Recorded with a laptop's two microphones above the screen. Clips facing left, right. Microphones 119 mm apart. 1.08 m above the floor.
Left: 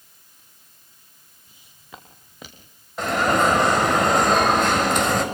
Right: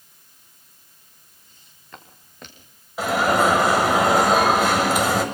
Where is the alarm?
5° right (ahead or behind), 7 m.